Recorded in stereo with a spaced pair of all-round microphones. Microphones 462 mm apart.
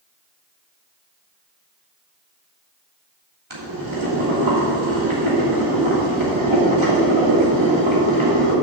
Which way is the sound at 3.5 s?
75° right (ahead or behind).